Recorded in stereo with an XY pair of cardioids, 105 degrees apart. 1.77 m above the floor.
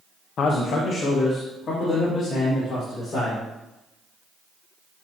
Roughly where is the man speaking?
Ahead left.